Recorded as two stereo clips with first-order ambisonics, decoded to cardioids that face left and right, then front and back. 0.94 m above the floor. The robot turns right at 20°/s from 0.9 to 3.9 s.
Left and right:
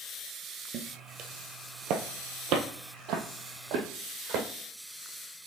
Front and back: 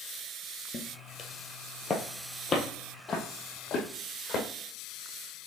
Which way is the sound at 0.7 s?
55° right.